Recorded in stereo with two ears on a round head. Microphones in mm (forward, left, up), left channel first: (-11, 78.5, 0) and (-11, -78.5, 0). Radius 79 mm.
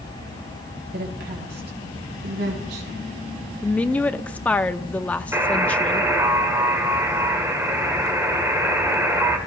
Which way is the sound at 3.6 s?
10° left (ahead or behind).